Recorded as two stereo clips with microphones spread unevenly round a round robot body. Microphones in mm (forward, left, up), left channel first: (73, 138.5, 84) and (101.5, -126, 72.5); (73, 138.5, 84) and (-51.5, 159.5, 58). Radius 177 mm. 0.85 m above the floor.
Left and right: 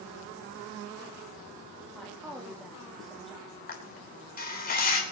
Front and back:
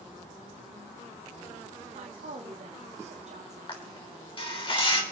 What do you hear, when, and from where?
1.9 s a woman speaking: 175° right, 1.5 m
3.7 s a camera shutter: 40° left, 3.5 m